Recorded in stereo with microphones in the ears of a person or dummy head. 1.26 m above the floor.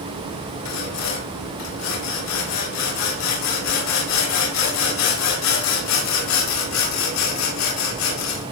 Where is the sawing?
85° left, 7.5 m.